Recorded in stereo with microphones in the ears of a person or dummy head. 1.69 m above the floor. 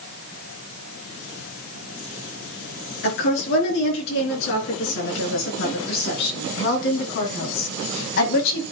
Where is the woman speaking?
65° left (ahead or behind), 5 m; by 8.6 s 60° left (ahead or behind), 2 m.